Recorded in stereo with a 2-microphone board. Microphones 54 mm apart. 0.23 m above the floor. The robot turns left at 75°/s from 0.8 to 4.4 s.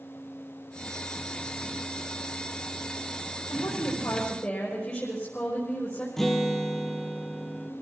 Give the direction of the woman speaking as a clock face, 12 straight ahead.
9 o'clock.